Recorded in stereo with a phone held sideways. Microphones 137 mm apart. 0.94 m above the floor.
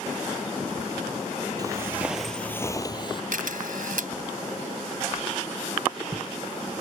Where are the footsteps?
30° right (ahead or behind); by 3.2 s 40° left (ahead or behind).